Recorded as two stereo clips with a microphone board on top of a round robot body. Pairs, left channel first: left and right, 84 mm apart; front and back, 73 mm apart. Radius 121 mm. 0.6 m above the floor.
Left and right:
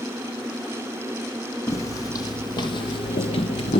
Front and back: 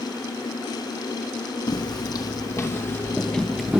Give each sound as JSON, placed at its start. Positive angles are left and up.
{"t": 1.7, "sound": "footsteps", "azimuth_deg": 35, "distance_m": 1.6}